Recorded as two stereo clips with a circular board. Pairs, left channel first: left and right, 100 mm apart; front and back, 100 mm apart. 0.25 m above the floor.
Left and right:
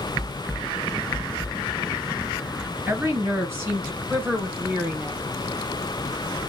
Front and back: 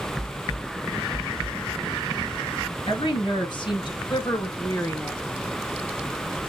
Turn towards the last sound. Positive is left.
turn(degrees=-40)